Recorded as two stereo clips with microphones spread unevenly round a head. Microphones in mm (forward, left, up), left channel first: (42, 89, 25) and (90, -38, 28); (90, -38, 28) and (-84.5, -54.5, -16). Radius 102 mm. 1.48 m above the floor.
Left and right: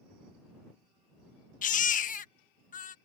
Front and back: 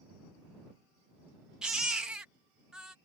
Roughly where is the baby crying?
Left.